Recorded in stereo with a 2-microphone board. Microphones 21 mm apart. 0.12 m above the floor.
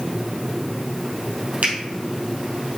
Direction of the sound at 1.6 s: 70° right (ahead or behind).